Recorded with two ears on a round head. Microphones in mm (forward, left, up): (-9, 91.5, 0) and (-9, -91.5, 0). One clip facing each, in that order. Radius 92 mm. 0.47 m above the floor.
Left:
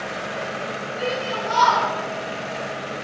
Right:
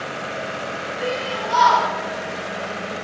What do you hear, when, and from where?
1.0 s a shout: 40° left (ahead or behind), 7 m